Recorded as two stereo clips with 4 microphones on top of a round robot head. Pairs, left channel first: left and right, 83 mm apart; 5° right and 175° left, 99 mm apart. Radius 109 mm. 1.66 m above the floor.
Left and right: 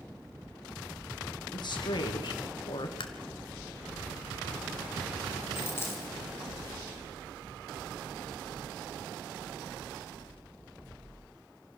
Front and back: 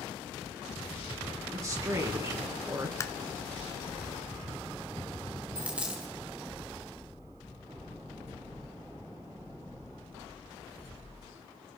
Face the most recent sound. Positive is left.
turn(degrees=115)